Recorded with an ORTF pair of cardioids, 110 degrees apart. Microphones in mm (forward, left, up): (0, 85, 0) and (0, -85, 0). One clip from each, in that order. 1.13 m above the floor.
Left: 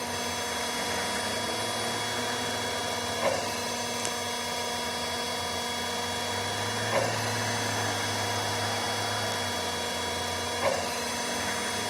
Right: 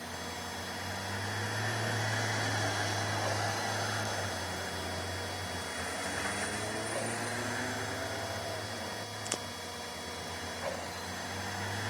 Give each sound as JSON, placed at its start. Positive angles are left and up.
{"t": 0.0, "sound": "a machine running", "azimuth_deg": 60}